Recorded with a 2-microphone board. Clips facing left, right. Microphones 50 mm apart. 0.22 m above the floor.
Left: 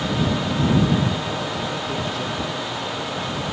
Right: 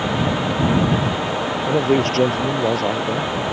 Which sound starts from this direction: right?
A man speaking, at 1.7 s.